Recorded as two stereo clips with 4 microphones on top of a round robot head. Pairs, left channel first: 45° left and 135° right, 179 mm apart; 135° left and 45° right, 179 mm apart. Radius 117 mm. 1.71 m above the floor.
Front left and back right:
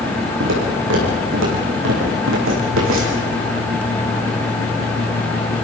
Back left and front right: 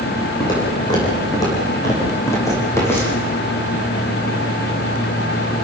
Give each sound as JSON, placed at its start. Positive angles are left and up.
{"t": 0.4, "sound": "footsteps", "azimuth_deg": -155, "distance_m": 6.5}